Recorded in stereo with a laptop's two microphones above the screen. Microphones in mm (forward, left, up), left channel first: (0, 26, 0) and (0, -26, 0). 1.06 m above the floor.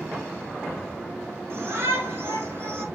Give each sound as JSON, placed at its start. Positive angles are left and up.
{"t": 1.5, "sound": "a shout", "side_deg": -50, "distance_m": 2.5}